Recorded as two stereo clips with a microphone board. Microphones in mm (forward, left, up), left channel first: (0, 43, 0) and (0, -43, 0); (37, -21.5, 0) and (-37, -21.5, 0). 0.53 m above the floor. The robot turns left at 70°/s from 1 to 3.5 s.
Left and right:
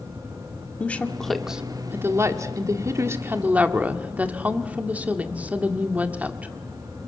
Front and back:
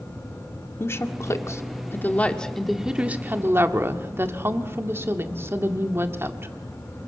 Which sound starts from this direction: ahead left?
A woman speaking, at 0.8 s.